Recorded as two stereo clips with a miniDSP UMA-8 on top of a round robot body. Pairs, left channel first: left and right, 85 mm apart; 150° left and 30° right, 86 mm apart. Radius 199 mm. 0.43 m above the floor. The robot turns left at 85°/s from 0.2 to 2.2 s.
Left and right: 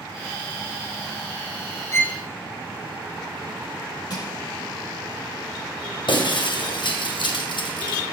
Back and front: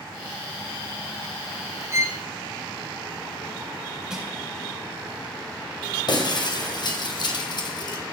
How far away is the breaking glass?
About 2 m.